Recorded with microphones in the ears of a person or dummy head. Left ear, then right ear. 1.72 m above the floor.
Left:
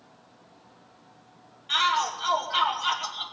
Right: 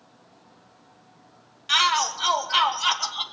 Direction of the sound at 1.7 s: 50° right (ahead or behind).